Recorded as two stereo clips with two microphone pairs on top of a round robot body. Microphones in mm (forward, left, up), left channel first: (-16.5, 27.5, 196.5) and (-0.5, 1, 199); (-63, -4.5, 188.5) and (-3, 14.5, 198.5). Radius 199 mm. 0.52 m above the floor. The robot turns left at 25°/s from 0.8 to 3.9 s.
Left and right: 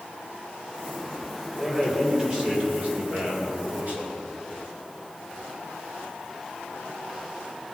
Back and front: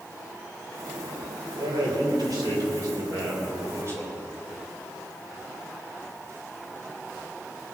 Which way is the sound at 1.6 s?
25° left.